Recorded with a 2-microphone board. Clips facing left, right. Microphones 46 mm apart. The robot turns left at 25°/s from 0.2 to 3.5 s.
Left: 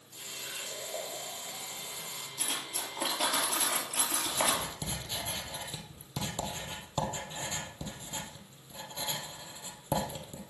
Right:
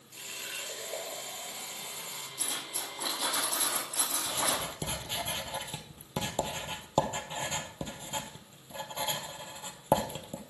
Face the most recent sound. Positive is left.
turn(degrees=-35)  # may be behind; listen again after turning